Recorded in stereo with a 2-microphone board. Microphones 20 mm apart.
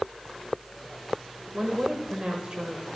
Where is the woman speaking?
60° right (ahead or behind), 1.2 m.